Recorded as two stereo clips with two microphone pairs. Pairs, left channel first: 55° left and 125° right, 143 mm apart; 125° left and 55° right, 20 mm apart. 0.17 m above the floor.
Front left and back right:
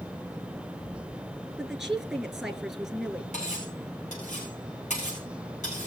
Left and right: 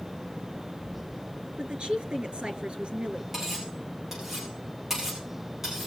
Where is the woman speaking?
40° right, 3 m.